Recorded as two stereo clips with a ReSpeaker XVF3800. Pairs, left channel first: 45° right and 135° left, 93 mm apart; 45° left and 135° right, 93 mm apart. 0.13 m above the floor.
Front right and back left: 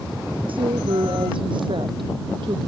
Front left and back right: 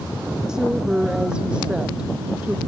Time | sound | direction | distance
0.5 | a woman speaking | 145° left | ?